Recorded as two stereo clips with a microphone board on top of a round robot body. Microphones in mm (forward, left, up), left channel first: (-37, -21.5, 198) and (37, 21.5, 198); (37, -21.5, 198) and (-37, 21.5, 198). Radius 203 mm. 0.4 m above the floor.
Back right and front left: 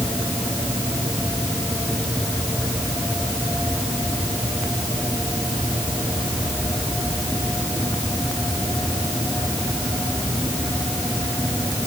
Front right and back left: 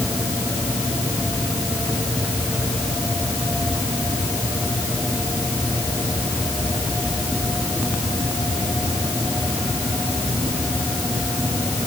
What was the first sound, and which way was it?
Only background noise.